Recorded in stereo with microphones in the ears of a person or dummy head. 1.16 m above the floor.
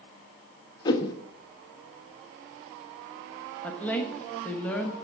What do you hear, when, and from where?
0.8 s a whoosh: 20° left (ahead or behind), 0.9 m
3.6 s a woman speaking: centre (ahead or behind), 1.3 m